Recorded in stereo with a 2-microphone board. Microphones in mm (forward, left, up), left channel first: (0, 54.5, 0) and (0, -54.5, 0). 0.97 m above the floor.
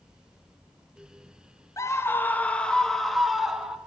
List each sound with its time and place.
1.8 s a scream: 30° left (ahead or behind), 1.0 m; by 3.8 s 5° right (ahead or behind), 1.7 m